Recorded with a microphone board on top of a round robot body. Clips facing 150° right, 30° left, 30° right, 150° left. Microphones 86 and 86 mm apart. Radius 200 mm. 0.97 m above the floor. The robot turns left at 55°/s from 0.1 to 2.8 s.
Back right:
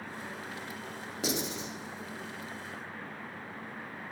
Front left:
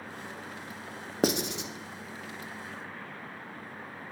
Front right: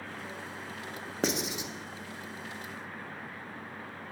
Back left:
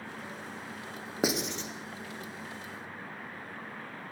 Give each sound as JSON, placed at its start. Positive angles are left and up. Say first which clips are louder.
{"t": 1.2, "sound": "writing", "louder": "front left 6 dB, back left 1 dB", "azimuth_deg": 70, "distance_m": 0.9}